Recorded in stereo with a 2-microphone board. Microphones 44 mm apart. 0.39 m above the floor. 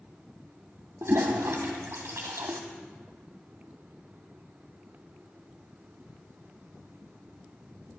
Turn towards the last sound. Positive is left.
turn(degrees=-85)